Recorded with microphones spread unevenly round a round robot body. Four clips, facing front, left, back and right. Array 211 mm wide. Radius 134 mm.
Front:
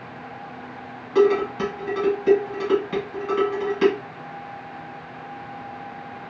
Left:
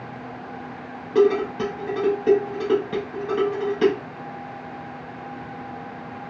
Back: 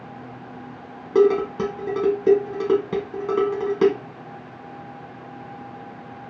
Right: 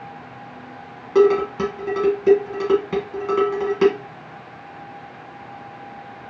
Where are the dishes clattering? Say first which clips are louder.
Right 3 dB, back 1 dB; 160° right, 1.0 m.